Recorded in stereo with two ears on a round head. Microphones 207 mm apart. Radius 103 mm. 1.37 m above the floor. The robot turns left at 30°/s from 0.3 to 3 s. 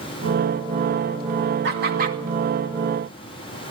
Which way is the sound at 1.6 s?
50° right (ahead or behind).